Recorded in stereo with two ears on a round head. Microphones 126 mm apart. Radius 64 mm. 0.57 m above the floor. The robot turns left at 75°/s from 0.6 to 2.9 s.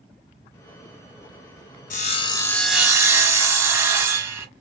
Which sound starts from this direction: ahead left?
Sawing, at 1.9 s.